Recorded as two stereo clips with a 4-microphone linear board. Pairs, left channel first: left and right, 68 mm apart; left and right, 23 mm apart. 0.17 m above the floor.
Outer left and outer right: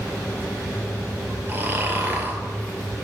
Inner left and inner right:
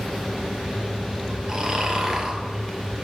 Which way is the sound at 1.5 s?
30° right (ahead or behind).